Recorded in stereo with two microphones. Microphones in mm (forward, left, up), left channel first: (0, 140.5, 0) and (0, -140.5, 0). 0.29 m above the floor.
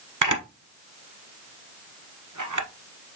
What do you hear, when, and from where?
0.2 s a camera shutter: 85° right, 1.3 m